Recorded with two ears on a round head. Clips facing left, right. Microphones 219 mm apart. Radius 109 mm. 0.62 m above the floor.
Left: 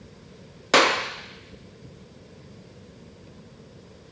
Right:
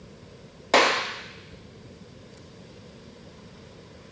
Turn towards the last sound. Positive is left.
turn(degrees=15)  # may be behind; listen again after turning